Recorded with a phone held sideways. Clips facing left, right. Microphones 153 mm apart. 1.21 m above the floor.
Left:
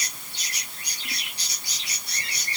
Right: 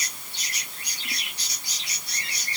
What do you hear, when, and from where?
Only background noise.